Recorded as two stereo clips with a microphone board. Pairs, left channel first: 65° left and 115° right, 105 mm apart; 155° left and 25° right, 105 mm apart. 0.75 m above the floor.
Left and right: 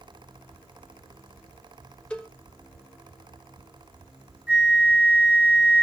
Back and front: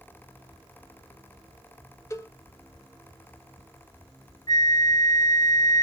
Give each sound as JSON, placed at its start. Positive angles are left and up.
{"t": 2.1, "sound": "a cowbell", "azimuth_deg": 135, "distance_m": 0.5}
{"t": 4.5, "sound": "a flute", "azimuth_deg": -175, "distance_m": 1.2}